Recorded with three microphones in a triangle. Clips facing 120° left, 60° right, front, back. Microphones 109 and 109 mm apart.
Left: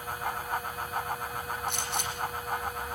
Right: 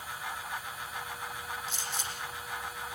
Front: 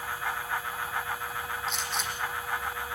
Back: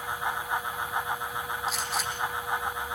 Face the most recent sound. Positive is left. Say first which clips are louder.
# left 5 dB, back 2 dB
turn(degrees=90)